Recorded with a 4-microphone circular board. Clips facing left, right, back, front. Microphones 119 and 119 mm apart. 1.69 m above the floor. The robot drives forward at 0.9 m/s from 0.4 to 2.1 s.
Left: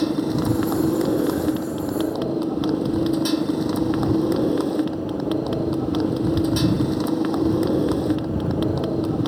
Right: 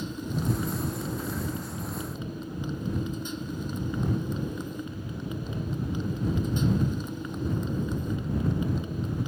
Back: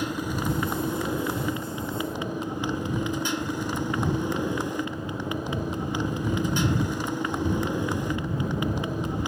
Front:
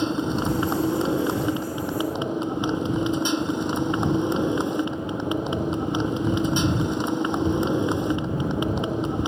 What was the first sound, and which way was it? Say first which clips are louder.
A motorcycle: left 12 dB, front 5 dB; 70° left.